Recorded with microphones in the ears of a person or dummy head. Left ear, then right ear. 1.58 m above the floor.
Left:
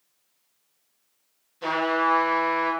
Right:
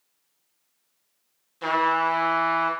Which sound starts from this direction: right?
A trumpet, at 1.6 s.